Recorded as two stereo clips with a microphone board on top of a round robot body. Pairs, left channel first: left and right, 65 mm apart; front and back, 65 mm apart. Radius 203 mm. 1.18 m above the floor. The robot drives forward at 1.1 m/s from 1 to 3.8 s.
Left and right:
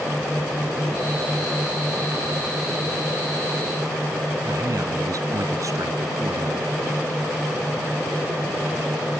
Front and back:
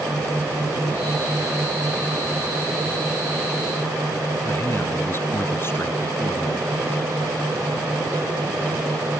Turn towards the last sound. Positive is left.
turn(degrees=-55)